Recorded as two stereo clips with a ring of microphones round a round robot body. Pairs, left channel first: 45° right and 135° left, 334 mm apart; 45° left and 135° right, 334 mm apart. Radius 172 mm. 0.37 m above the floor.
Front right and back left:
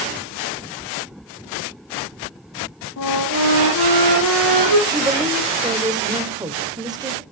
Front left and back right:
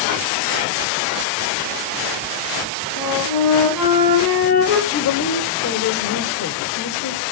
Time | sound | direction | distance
3.0 | a flute | 5° left | 8 m
4.9 | a woman speaking | 65° left | 1.7 m